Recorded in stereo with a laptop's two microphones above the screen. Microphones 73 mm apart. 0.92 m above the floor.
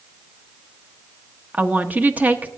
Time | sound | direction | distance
1.5 | a woman speaking | 20° right (ahead or behind) | 1.0 m